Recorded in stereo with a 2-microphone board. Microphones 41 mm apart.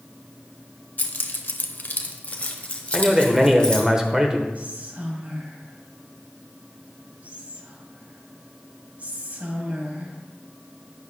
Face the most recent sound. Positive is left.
turn(degrees=-40)  # may be behind; listen again after turning